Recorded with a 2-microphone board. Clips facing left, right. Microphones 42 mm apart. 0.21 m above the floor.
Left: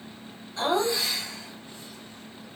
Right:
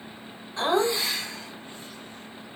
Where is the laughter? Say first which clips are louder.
Right 1 dB; 25° right (ahead or behind), 2 m; by 2.5 s 45° right (ahead or behind), 2 m.